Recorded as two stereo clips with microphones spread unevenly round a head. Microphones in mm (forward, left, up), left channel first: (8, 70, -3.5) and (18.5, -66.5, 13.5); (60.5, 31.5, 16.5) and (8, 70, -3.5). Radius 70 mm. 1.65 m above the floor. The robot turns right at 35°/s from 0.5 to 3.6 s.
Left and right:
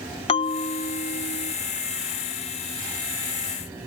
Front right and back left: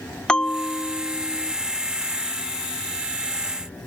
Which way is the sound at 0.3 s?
40° left.